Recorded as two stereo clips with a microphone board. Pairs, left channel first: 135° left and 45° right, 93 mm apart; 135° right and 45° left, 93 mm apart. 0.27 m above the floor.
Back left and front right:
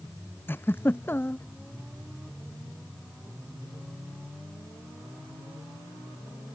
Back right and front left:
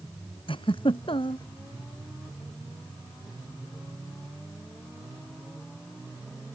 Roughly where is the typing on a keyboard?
I don't hear typing on a keyboard.